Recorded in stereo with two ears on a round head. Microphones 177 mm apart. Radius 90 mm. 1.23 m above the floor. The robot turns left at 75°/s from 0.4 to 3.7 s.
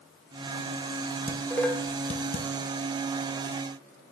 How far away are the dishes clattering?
About 0.5 m.